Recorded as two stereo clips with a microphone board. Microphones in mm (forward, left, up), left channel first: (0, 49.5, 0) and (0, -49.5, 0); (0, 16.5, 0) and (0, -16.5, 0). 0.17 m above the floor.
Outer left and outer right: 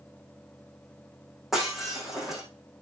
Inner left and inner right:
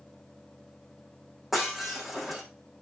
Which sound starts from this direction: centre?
Breaking glass, at 1.5 s.